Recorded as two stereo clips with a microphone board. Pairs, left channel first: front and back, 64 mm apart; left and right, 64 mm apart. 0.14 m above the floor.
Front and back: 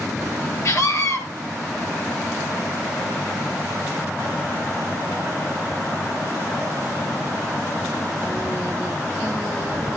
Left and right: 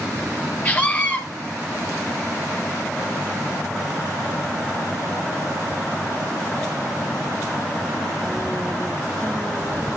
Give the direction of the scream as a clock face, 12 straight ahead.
11 o'clock.